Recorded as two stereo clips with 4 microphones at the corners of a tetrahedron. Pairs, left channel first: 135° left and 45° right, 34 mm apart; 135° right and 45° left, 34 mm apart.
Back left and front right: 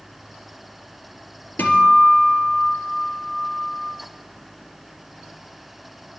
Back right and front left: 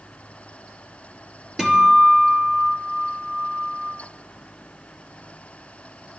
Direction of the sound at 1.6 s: 115° left.